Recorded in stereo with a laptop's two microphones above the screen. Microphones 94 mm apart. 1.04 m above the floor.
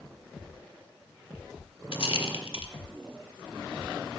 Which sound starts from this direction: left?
A rattle, at 1.9 s.